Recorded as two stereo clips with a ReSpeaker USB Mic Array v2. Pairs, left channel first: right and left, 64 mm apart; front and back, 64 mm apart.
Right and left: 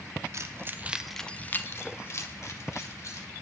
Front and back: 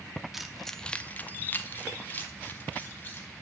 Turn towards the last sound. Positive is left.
turn(degrees=-60)